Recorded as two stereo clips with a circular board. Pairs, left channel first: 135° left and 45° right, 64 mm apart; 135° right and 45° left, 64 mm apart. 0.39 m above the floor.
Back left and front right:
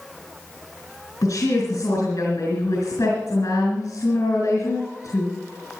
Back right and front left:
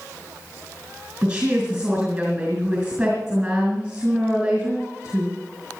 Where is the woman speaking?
120° left, 4 m.